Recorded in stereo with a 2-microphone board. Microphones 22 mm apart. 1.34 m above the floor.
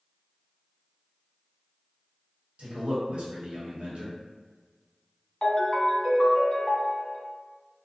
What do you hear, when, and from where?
2.6 s a man speaking: 65° right (ahead or behind), 1.0 m
5.4 s a ringtone: 30° left (ahead or behind), 0.8 m